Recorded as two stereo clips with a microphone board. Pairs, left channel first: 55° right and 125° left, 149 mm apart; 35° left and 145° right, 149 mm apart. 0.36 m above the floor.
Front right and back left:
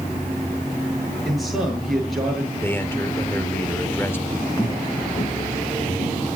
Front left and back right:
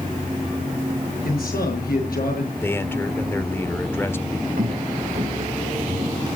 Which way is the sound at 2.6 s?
10° right.